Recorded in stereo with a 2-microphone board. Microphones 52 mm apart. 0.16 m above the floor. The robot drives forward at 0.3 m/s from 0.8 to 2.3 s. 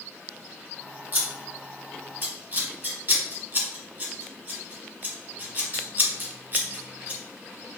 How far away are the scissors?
About 1.3 m.